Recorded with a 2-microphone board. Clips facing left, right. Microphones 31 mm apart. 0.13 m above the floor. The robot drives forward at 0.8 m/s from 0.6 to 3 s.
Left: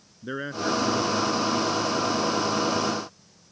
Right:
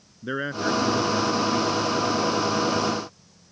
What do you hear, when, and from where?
0.2 s a man speaking: 20° right (ahead or behind); by 2.9 s 10° right (ahead or behind)